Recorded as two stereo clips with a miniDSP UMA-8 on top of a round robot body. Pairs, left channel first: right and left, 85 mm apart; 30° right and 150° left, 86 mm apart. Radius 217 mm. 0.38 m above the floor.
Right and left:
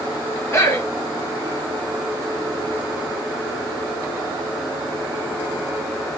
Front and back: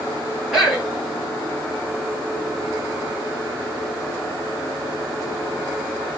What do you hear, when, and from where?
0.5 s a man speaking: 130° right, 1.5 m